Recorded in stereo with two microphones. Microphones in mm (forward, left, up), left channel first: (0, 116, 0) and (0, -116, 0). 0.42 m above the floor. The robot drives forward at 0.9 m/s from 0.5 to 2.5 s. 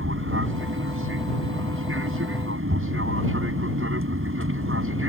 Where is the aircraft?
60° right (ahead or behind).